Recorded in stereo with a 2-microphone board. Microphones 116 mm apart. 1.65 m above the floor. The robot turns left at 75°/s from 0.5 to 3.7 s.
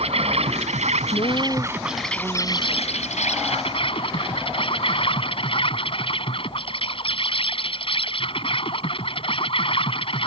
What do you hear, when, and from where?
0.0 s an insect: 70° right; by 10.3 s 50° left
1.1 s a woman speaking: 65° left; by 3.2 s 95° right